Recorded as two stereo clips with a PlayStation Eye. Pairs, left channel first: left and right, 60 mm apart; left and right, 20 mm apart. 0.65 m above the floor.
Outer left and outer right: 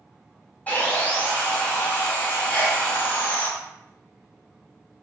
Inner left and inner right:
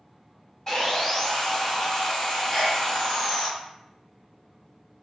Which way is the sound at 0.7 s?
25° left (ahead or behind).